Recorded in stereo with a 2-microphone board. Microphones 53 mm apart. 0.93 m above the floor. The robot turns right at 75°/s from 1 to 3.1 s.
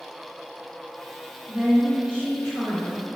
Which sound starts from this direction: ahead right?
A woman speaking, at 1.5 s.